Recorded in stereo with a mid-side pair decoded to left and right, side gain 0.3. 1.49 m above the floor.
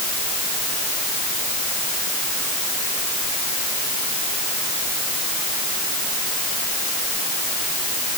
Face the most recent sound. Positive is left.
No sound to turn to.